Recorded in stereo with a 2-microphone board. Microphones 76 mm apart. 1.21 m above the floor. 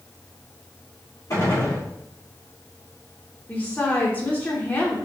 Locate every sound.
1.3 s a gunshot: 45° left (ahead or behind), 2.5 m
3.5 s a woman speaking: 30° left (ahead or behind), 1.0 m